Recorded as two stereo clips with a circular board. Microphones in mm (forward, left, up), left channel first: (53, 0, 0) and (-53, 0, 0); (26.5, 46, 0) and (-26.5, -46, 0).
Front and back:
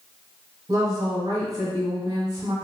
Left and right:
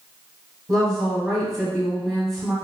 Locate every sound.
0.7 s a woman speaking: 145° left, 1.3 m